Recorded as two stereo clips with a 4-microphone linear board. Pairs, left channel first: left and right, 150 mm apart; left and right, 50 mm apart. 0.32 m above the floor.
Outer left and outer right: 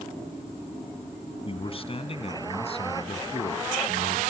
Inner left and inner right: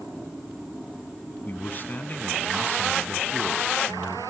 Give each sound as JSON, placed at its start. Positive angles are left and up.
{"t": 1.4, "sound": "a man speaking", "side_deg": 40, "distance_m": 2.5}